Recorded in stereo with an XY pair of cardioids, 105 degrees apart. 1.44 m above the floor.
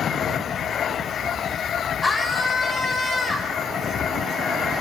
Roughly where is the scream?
Ahead.